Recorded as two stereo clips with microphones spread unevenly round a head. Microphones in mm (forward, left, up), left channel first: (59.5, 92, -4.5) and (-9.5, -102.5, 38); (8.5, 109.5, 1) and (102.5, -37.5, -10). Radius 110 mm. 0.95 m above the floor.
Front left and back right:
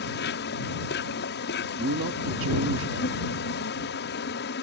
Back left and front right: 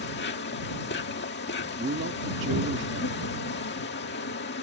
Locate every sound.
0.0 s an insect: 105° left
1.8 s a man speaking: 90° right